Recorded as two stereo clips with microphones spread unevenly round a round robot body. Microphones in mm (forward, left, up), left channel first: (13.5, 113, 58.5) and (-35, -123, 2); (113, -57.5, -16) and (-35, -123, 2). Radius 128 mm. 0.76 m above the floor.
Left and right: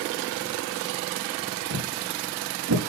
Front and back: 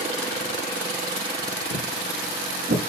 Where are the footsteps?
120° right, 6.5 m; by 2.8 s 130° right, 6 m.